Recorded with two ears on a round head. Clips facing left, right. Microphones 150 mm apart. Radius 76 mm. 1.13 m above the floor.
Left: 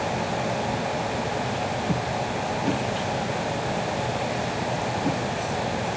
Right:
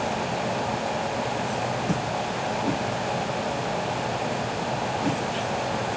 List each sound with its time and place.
Only background noise.